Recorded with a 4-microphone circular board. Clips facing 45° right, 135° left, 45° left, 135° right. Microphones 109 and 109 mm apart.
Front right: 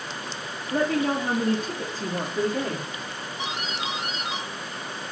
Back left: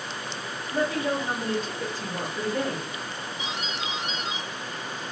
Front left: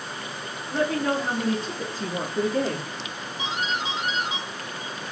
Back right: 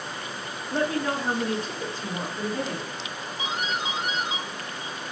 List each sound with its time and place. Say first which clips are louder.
0.7 s a woman speaking: front right 3 dB, front left 2 dB; 60° right, 0.9 m; by 2.9 s 40° left, 1.0 m
3.4 s a doorbell: front right 3 dB, front left 1 dB; 65° right, 1.4 m